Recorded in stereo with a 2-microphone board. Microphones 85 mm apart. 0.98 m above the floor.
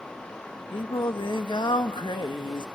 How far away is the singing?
About 1.2 m.